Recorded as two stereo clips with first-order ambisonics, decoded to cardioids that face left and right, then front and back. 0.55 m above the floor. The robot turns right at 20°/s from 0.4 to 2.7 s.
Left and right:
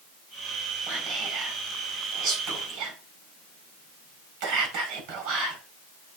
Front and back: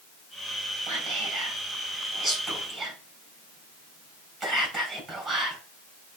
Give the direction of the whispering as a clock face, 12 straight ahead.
5 o'clock.